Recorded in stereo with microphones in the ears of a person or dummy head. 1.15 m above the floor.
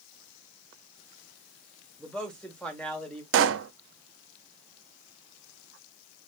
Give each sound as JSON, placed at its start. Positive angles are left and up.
{"t": 2.0, "sound": "a man speaking", "side_deg": -5, "distance_m": 1.3}
{"t": 3.3, "sound": "a pop", "side_deg": -70, "distance_m": 0.7}